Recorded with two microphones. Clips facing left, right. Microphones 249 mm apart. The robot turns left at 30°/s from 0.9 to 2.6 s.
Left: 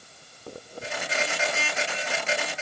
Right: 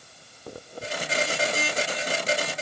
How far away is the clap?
I don't hear a clap.